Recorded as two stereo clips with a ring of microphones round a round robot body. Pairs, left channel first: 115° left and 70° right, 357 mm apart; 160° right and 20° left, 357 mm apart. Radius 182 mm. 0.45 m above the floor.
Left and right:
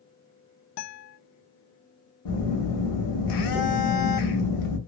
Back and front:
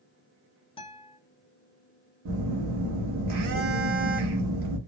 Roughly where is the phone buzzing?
Left.